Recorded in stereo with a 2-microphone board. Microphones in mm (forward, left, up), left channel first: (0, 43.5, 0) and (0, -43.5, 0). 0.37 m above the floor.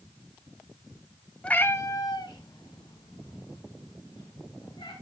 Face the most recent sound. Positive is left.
turn(degrees=80)